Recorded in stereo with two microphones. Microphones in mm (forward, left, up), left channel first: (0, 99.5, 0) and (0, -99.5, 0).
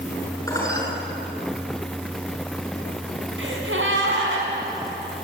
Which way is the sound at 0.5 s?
15° left (ahead or behind).